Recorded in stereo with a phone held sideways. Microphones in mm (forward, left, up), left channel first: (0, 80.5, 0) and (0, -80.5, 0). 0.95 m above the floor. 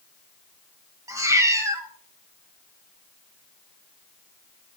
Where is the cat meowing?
20° right (ahead or behind), 1.7 m.